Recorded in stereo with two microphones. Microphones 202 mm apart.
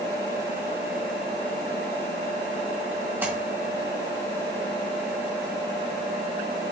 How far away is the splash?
About 2.5 m.